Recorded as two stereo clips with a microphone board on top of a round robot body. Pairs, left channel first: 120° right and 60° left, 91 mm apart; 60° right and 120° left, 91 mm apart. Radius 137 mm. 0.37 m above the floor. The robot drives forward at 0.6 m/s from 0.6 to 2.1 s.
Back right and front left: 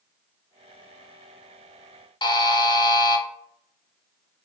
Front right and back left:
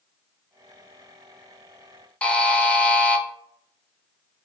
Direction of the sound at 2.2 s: 135° right.